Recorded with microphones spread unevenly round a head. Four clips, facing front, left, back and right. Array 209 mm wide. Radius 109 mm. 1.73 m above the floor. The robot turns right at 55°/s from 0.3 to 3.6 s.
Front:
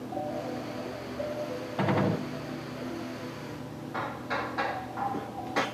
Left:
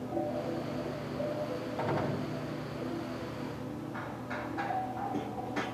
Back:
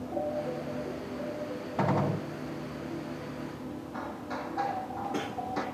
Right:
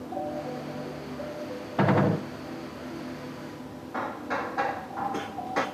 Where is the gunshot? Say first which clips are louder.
Right 11 dB, front 1 dB; 90° right, 1.5 m; by 2.2 s 65° right, 1.5 m.